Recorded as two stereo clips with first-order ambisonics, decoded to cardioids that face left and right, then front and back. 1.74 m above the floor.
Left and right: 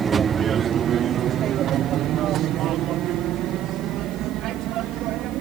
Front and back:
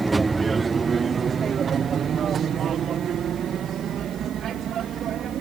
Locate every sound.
0.0 s an aircraft: 120° right; by 5.4 s 130° right